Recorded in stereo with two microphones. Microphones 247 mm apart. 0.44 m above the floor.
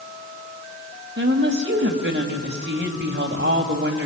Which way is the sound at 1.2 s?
45° right (ahead or behind).